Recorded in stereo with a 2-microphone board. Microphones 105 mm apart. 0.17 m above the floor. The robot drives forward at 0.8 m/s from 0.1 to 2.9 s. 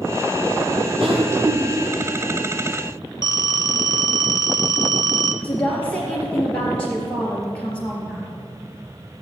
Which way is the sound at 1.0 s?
55° right (ahead or behind).